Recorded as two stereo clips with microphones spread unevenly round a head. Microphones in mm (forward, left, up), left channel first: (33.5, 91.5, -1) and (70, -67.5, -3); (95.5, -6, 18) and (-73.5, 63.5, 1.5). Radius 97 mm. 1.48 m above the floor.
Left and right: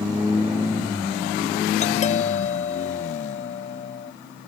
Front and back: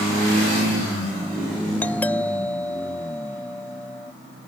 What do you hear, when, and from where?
1.8 s a doorbell: 60° left